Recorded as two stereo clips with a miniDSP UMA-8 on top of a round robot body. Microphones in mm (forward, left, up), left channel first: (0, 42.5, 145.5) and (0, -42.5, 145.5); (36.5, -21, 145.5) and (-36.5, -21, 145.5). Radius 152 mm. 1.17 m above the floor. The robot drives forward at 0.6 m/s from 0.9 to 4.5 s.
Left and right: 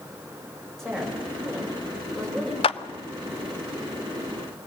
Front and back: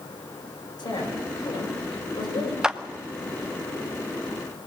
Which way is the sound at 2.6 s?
95° left.